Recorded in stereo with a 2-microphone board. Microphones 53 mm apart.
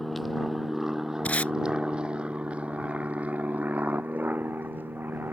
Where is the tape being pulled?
30° left (ahead or behind).